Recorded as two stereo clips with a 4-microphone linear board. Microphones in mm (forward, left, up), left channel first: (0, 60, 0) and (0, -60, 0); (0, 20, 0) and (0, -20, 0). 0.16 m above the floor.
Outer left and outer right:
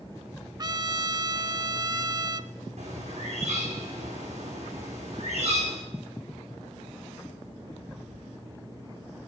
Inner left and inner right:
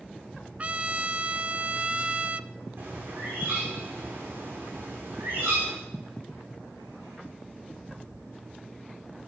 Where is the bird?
65° right (ahead or behind), 8.5 m.